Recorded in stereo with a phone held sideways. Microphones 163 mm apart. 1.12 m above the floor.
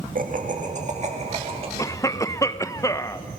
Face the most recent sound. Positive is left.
turn(degrees=20)  # may be behind; listen again after turning